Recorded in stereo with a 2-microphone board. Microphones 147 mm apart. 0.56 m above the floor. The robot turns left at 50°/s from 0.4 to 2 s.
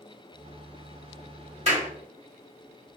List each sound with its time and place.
1.7 s a clap: 45° right (ahead or behind), 1.2 m; by 1.9 s 50° right (ahead or behind), 1.2 m